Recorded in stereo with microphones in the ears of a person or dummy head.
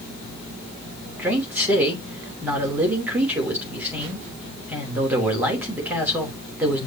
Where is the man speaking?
10° right (ahead or behind), 3 m.